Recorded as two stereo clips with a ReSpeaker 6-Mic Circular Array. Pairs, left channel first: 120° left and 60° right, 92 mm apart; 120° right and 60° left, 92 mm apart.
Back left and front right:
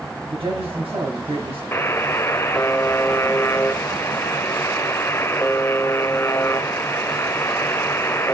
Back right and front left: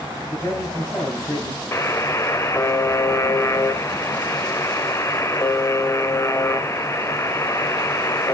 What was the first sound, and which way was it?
A man speaking, 70° right.